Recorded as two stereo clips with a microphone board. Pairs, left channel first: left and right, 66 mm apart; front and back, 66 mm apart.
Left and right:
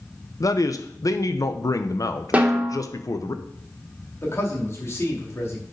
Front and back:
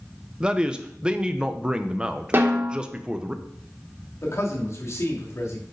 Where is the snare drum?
150° right, 1.5 m.